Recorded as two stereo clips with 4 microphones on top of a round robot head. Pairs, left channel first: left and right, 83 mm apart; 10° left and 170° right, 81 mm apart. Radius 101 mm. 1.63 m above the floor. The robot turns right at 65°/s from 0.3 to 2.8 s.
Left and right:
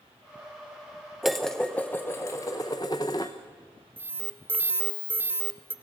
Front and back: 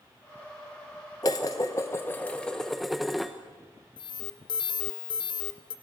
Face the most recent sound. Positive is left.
turn(degrees=-25)